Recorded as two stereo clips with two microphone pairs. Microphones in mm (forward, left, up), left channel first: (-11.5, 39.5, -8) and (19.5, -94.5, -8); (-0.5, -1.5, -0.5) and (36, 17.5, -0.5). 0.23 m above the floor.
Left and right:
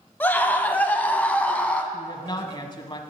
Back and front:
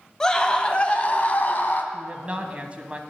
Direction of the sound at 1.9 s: 70° left.